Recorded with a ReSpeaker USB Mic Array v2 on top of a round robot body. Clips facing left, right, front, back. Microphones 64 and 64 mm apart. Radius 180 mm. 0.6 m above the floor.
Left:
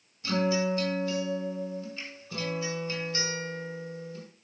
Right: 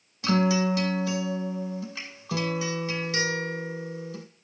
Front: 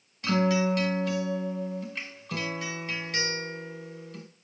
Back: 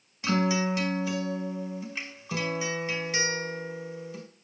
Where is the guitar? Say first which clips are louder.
Right 4 dB, front 1 dB; 100° right, 2.0 m.